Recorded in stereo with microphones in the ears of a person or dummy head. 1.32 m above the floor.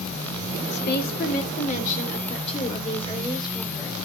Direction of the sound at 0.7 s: 55° left (ahead or behind).